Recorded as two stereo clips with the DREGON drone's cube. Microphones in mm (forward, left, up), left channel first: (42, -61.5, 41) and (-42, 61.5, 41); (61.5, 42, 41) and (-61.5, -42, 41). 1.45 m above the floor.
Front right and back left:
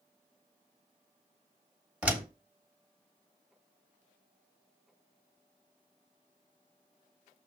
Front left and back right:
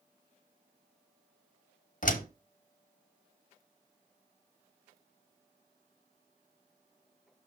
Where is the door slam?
45° left, 1.2 m.